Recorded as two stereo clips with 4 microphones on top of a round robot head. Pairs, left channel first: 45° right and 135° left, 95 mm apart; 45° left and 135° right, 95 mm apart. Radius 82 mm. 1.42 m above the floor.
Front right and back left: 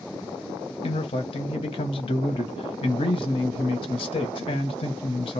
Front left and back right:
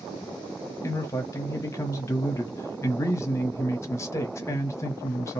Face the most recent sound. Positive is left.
turn(degrees=-15)